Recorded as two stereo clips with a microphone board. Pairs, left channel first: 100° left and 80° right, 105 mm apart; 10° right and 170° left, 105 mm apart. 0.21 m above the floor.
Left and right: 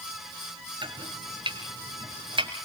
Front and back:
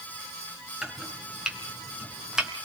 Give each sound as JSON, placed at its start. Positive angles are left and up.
{"t": 0.8, "sound": "chopping", "azimuth_deg": -105, "distance_m": 3.0}